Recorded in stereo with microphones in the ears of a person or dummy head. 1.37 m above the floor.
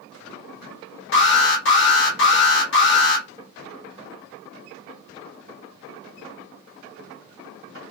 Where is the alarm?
60° left (ahead or behind), 2 m.